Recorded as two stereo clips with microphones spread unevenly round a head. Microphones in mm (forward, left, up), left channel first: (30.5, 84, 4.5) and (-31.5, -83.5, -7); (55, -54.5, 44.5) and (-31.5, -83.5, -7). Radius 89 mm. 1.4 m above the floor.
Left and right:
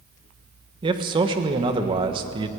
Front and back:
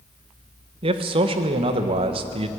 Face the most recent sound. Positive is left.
turn(degrees=-175)